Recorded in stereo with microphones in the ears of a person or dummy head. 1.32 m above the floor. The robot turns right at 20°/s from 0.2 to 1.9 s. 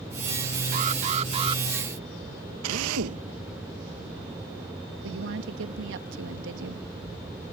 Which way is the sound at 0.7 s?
45° right (ahead or behind).